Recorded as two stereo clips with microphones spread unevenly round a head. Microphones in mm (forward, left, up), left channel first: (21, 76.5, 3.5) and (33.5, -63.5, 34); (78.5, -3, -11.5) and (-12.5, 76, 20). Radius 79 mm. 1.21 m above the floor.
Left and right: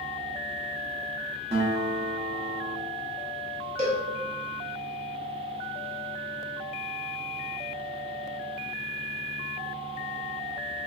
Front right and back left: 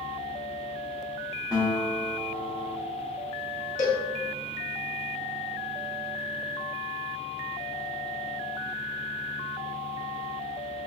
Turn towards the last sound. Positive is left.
turn(degrees=-75)